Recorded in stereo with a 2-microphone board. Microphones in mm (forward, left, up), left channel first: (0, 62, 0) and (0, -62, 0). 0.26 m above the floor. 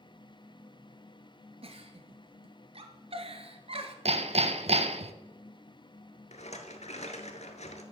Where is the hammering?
55° right (ahead or behind), 0.5 m.